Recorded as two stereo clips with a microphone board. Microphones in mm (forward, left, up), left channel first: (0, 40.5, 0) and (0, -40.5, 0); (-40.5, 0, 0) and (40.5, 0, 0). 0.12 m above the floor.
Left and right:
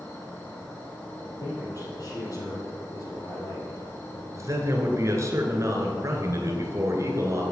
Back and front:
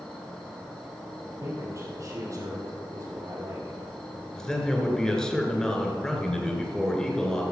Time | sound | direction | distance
0.0 | an insect | 110° left | 2.5 m
1.4 | a man speaking | 45° left | 3.5 m
4.3 | a man speaking | 105° right | 1.9 m